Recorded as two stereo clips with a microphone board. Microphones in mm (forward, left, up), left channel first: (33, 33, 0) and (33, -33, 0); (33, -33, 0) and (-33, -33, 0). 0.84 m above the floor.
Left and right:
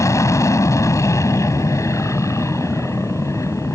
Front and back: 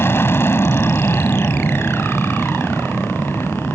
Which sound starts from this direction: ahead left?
An aircraft, at 0.0 s.